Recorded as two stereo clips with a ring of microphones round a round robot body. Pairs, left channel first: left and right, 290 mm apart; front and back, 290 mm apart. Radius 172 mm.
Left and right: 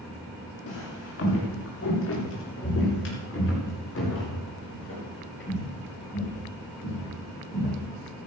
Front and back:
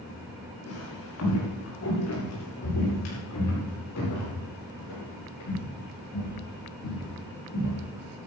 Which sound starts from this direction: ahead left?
Footsteps, at 0.7 s.